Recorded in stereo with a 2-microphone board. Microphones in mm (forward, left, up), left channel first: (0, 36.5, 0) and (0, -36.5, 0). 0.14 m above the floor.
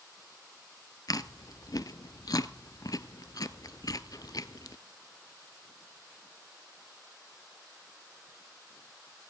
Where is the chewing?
55° left (ahead or behind), 0.8 m.